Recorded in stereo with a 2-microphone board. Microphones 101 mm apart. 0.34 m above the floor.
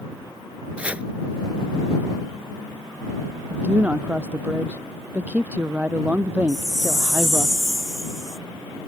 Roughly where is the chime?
Centre.